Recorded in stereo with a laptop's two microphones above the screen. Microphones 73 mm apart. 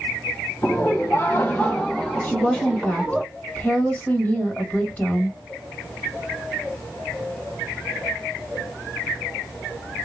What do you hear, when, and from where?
0.6 s laughter: 40° left (ahead or behind), 0.9 m; by 3.2 s 15° right (ahead or behind), 1.3 m
2.2 s a woman speaking: 20° left (ahead or behind), 1.2 m